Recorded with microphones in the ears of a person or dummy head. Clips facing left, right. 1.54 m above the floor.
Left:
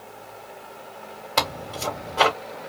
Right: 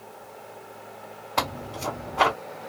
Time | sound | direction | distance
1.4 | tearing paper | 40° left (ahead or behind) | 1.8 m